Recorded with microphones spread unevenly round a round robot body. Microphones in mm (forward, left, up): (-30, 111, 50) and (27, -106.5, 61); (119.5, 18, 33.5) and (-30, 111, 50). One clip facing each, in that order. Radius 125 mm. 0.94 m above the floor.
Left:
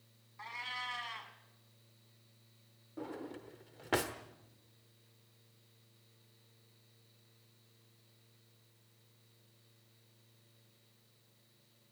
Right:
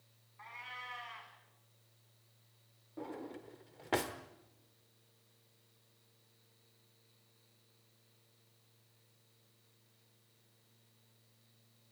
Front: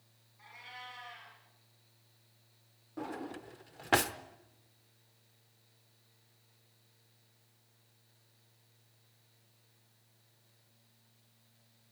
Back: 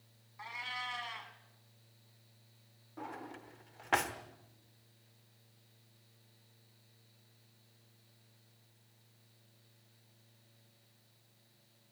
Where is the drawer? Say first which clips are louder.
Left 1 dB, front 6 dB; 20° left, 0.9 m.